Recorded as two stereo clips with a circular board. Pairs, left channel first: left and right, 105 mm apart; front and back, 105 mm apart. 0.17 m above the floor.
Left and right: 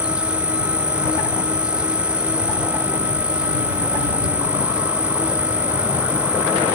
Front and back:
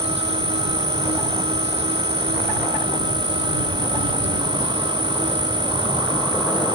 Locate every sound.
0.0 s an insect: 170° right